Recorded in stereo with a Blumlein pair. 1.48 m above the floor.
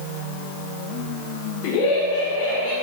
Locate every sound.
1.6 s laughter: 45° left, 1.4 m; by 2.7 s 65° left, 1.9 m